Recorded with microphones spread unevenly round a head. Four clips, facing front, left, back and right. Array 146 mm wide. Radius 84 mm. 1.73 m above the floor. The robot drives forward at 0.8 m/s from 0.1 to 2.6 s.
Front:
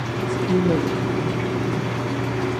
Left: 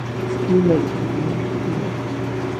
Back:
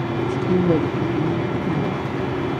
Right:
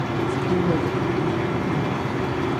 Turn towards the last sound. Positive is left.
turn(degrees=155)